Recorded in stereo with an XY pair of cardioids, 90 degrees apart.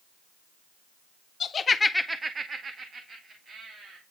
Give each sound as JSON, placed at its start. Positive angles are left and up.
{"t": 1.4, "sound": "laughter", "azimuth_deg": 60, "distance_m": 1.0}